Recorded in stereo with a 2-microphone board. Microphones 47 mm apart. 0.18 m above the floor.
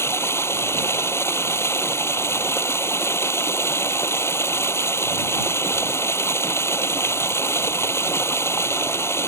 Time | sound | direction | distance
0.0 | running water | 70° left (ahead or behind) | ?